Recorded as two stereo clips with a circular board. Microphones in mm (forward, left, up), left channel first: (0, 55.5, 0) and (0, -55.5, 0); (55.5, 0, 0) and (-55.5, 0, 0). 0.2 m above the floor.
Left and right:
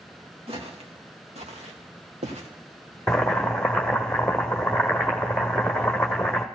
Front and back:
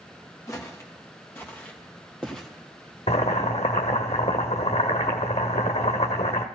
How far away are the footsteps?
About 3 m.